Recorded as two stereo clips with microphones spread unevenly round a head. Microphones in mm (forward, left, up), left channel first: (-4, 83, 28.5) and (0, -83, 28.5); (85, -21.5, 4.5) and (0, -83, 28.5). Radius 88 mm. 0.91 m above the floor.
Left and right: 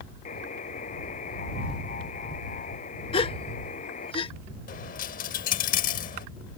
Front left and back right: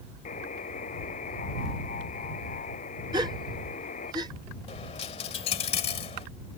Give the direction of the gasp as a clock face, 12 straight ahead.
7 o'clock.